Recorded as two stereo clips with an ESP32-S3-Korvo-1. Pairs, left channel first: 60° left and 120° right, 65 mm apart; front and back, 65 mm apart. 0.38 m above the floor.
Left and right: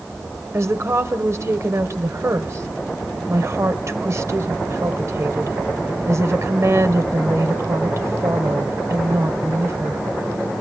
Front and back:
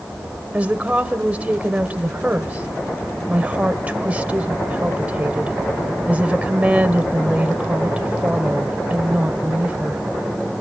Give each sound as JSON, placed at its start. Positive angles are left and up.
{"t": 0.5, "sound": "a woman speaking", "azimuth_deg": -120, "distance_m": 1.4}